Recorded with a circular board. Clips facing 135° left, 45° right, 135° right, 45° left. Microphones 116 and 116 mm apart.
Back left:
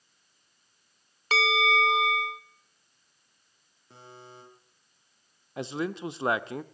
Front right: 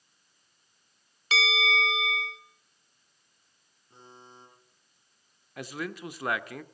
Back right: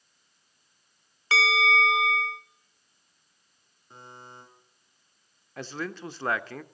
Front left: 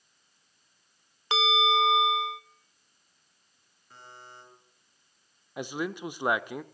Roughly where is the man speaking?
Left.